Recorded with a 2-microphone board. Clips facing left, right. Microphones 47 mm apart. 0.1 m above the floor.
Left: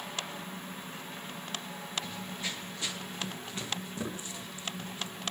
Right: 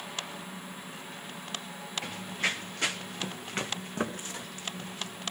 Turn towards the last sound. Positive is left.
turn(degrees=-65)  # may be behind; listen again after turning